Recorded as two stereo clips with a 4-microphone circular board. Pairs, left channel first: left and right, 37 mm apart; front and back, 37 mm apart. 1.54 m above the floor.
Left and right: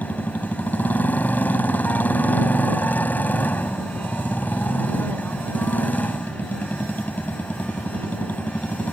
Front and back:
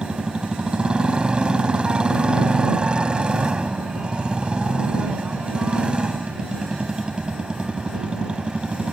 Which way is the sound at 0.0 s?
120° left.